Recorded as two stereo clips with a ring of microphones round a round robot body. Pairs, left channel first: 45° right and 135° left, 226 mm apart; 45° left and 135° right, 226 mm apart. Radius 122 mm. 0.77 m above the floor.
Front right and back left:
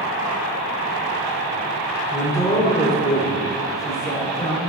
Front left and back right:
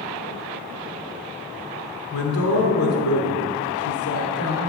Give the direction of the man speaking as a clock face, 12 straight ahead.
11 o'clock.